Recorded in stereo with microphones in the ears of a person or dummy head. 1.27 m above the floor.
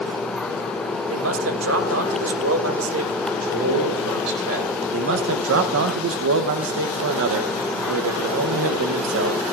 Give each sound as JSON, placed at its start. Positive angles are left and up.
{"t": 1.1, "sound": "a man speaking", "side_deg": -75, "distance_m": 2.0}
{"t": 3.3, "sound": "a man speaking", "side_deg": -80, "distance_m": 4.0}
{"t": 4.9, "sound": "a man speaking", "side_deg": -70, "distance_m": 0.7}